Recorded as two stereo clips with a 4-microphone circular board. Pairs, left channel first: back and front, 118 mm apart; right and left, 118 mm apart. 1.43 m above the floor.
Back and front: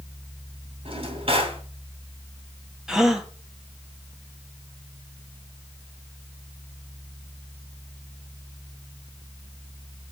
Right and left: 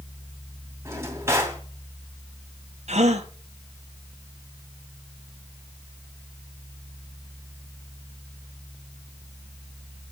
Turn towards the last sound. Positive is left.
turn(degrees=85)